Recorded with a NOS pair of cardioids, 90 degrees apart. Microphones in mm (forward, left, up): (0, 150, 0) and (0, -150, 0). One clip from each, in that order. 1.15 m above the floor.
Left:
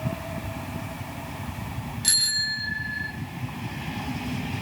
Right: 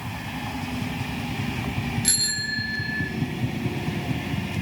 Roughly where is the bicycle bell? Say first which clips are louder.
Left 3 dB; ahead.